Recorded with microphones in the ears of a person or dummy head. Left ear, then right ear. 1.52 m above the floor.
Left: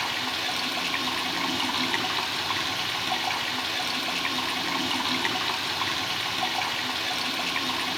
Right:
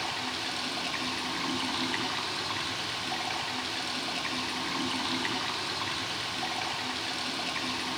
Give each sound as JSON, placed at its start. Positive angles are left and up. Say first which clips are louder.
{"t": 0.0, "sound": "running water", "louder": "left 5 dB", "side_deg": 25, "distance_m": 2.0}